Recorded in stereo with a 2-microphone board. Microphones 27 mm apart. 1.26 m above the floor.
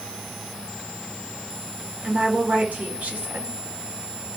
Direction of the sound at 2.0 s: 70° right (ahead or behind).